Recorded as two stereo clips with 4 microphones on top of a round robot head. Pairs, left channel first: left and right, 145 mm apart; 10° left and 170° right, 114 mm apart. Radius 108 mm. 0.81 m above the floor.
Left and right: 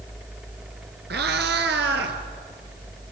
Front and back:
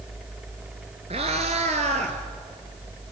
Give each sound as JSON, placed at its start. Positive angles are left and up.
{"t": 1.1, "sound": "a cat meowing", "azimuth_deg": -115, "distance_m": 1.1}